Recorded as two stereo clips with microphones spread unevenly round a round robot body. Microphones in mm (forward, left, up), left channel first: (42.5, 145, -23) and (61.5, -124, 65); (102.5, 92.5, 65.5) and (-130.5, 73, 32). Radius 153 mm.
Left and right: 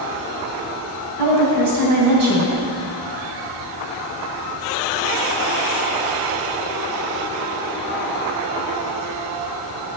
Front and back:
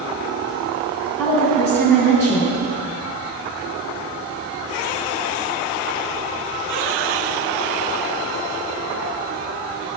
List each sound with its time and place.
1.2 s a woman speaking: 80° right, 3 m